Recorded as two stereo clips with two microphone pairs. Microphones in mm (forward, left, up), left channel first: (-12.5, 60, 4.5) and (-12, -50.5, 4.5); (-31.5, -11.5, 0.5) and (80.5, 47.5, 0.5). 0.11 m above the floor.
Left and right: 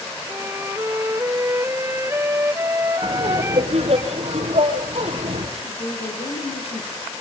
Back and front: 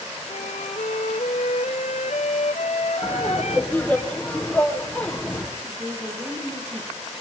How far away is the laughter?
About 3.5 m.